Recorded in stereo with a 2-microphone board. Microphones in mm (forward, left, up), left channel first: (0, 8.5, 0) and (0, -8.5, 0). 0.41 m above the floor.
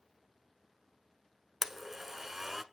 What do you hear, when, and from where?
1.6 s a blender: 20° right (ahead or behind), 0.7 m